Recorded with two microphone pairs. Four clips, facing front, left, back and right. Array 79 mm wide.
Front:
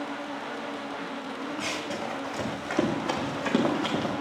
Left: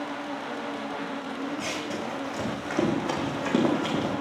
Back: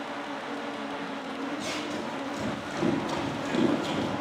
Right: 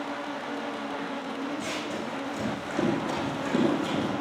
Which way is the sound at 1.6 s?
25° left.